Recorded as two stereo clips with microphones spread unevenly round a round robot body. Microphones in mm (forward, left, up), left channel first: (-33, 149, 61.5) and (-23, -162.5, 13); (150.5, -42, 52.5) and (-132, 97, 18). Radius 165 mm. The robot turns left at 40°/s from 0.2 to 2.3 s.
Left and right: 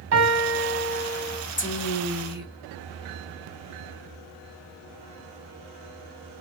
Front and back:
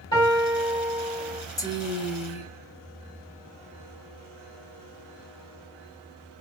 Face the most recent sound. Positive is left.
turn(degrees=25)